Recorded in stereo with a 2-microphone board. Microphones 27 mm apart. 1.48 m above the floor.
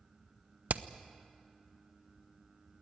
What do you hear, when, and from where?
0.7 s hammering: 65° right (ahead or behind), 0.7 m